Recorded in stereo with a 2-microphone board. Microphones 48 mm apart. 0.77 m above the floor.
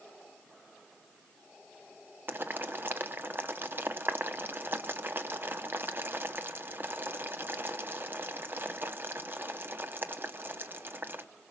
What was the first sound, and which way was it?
Boiling, 50° right (ahead or behind).